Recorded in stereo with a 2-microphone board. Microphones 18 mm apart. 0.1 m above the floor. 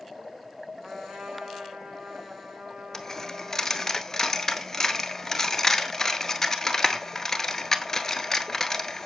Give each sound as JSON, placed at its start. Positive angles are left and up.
{"t": 0.8, "sound": "a trumpet", "side_deg": -60, "distance_m": 5.0}
{"t": 2.9, "sound": "a dropped coin", "side_deg": 25, "distance_m": 0.8}